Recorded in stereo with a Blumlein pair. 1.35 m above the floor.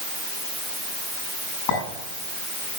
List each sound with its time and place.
1.7 s a clink: 45° left, 8 m